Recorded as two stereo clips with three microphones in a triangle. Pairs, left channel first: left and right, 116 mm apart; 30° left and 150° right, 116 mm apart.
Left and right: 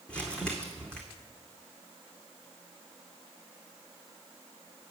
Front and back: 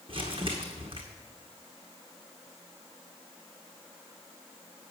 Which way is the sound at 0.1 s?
170° left.